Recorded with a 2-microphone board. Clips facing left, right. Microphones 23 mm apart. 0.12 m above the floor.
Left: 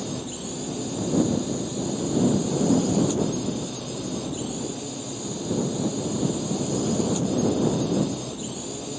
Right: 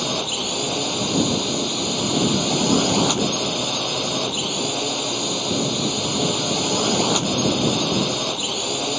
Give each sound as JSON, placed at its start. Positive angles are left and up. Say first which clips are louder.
{"t": 0.0, "sound": "a drone", "louder": "right 9 dB", "side_deg": -55}